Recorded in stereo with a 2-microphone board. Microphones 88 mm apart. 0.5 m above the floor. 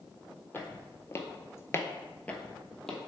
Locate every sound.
0.5 s footsteps: 25° left (ahead or behind), 0.9 m; by 3.0 s 5° left (ahead or behind), 1.0 m